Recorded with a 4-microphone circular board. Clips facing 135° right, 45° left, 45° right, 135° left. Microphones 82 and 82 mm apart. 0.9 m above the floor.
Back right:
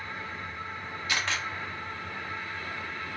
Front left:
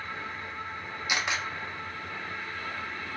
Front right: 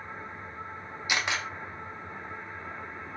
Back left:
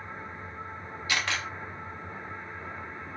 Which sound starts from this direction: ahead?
A camera shutter, at 1.1 s.